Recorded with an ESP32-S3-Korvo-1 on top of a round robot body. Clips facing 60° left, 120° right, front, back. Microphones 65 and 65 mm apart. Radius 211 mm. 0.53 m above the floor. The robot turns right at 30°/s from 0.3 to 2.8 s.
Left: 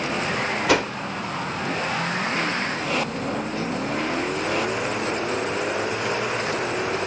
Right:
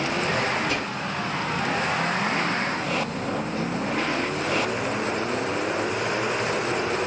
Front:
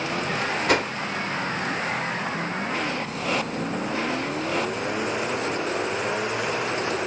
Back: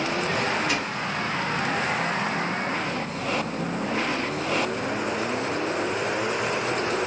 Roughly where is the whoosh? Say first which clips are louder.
Left 7 dB, front 5 dB; ahead left.